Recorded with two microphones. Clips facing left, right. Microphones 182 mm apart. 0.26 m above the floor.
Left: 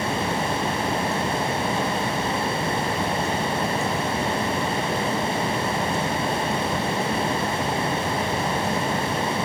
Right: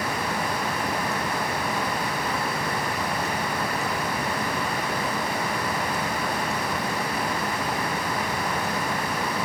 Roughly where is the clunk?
I don't hear a clunk.